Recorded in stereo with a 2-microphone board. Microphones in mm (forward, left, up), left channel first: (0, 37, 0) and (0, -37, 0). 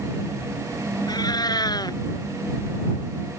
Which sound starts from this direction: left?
A cat meowing, at 1.1 s.